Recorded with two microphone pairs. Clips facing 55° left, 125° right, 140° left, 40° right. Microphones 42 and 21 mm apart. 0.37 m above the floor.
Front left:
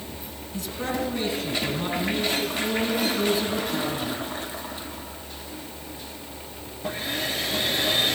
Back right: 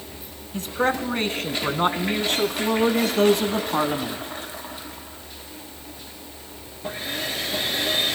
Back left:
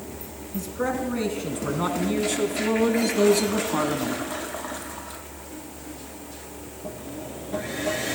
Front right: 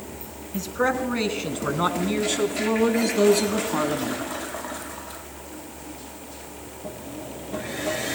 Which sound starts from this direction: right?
A man speaking, at 0.5 s.